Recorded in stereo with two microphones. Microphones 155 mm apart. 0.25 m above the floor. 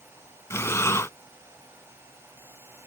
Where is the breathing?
20° left (ahead or behind).